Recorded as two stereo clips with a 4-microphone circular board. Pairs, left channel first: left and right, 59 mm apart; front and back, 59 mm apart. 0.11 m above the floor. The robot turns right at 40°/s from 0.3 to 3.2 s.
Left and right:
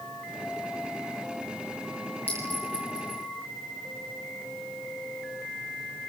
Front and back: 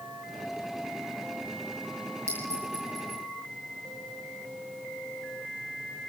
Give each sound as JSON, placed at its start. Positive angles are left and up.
{"t": 2.3, "sound": "a clink", "azimuth_deg": 140, "distance_m": 8.5}